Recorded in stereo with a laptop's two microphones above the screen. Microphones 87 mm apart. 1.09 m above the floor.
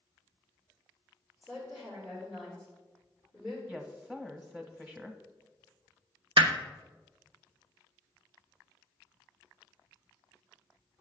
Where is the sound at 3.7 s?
Centre (ahead or behind), 0.9 m.